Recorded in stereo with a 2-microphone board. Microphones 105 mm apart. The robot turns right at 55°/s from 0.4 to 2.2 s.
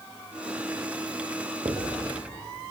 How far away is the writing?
About 8 m.